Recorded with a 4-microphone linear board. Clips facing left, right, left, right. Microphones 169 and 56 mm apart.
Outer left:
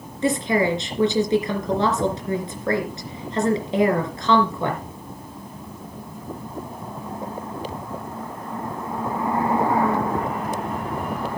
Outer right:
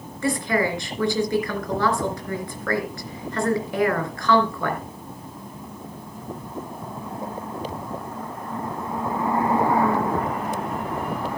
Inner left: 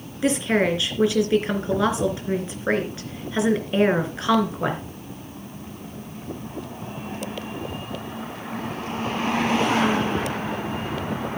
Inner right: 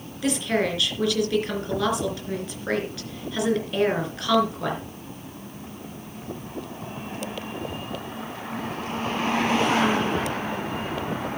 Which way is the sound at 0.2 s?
20° left (ahead or behind).